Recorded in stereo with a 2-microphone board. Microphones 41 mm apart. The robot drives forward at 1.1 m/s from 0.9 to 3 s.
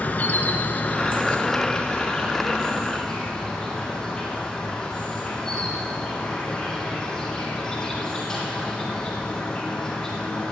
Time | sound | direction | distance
0.0 | an insect | 40° left (ahead or behind) | 1.1 m